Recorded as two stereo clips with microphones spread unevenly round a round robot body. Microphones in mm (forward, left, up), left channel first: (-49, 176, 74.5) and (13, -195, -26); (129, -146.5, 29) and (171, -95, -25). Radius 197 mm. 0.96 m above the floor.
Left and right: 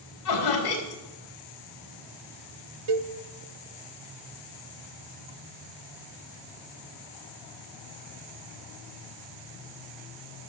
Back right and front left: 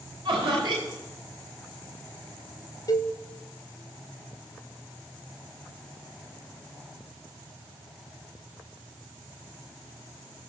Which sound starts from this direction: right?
A cowbell, at 2.9 s.